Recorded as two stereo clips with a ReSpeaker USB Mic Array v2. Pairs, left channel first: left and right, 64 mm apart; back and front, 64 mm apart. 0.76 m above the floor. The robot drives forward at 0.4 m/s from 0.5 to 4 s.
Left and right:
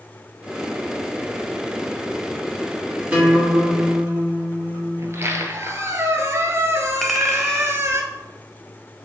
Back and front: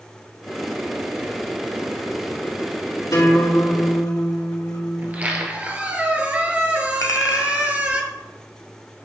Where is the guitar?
160° right, 2 m.